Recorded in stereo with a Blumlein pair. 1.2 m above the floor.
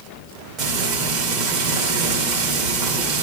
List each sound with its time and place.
0.6 s frying: 30° right, 2.5 m